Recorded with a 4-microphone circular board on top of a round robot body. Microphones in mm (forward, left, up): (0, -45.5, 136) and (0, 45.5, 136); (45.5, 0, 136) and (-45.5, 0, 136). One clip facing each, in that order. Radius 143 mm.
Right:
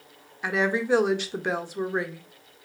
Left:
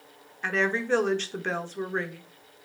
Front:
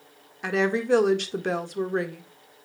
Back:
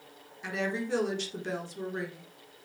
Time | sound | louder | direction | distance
0.4 | a woman speaking | right 2 dB, front 9 dB | 10° right | 1.7 m